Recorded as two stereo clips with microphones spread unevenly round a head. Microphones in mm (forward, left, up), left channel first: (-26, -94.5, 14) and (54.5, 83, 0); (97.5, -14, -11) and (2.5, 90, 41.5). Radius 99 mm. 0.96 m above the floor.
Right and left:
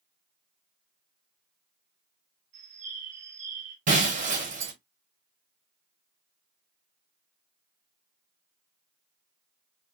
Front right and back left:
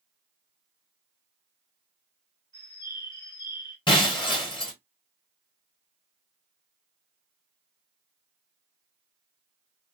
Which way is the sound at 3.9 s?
15° left.